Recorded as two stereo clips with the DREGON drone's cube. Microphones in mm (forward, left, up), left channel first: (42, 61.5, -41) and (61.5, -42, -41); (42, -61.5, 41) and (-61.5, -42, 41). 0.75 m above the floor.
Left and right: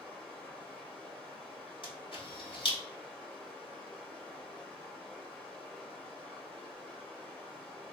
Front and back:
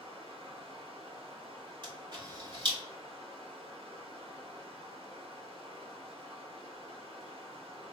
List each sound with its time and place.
0.0 s running water: 175° right, 1.5 m
1.8 s a camera shutter: 135° left, 1.9 m